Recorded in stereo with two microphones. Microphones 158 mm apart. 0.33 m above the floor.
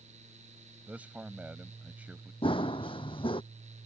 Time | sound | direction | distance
0.9 | a man speaking | 10° right (ahead or behind) | ?
2.4 | running footsteps | 35° left (ahead or behind) | ?